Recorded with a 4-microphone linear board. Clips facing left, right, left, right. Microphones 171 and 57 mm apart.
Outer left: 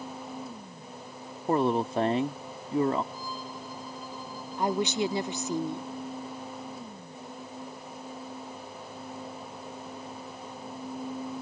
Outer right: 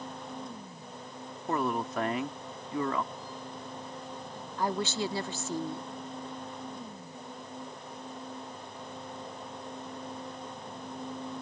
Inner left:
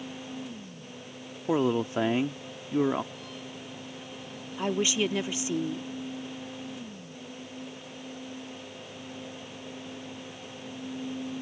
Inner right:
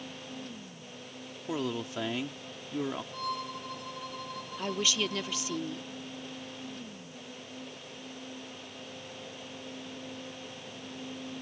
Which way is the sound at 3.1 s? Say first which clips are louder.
Outer left 3 dB, inner right 6 dB; 65° right (ahead or behind).